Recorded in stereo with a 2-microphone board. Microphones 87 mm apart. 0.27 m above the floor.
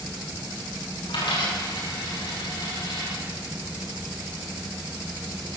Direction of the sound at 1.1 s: 75° left (ahead or behind).